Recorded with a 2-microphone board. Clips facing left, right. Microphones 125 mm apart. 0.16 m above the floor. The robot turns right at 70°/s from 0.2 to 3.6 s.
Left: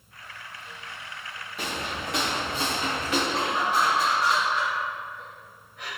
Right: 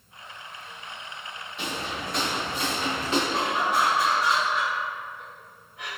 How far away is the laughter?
About 1.9 m.